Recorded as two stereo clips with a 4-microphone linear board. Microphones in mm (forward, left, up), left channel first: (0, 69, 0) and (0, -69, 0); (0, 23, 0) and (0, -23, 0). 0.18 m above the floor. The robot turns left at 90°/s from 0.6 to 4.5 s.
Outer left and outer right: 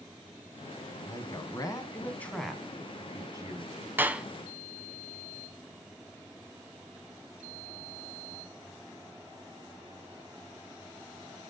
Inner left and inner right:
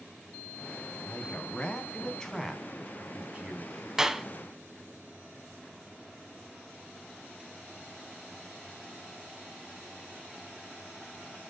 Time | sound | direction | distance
1.0 | a man speaking | 20° left (ahead or behind) | 1.1 m
4.0 | a clap | 15° right (ahead or behind) | 0.8 m